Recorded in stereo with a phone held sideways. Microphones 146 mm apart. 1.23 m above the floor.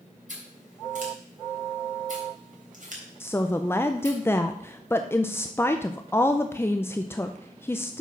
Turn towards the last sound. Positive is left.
turn(degrees=15)  # may be behind; listen again after turning